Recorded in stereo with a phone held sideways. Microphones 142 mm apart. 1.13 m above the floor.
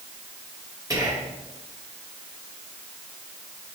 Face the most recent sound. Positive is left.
turn(degrees=-25)  # may be behind; listen again after turning